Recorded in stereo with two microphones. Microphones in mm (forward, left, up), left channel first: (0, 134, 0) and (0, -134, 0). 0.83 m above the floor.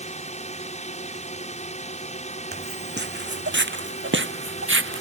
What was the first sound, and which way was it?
A drone, 25° left (ahead or behind).